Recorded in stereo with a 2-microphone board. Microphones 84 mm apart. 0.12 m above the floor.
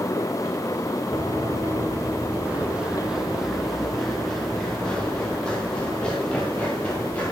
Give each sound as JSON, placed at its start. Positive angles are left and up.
{"t": 1.1, "sound": "running footsteps", "side_deg": -50, "distance_m": 1.8}